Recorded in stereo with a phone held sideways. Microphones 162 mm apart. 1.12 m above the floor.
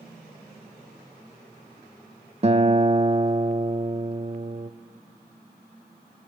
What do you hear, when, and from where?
2.4 s a guitar: 40° right (ahead or behind), 0.6 m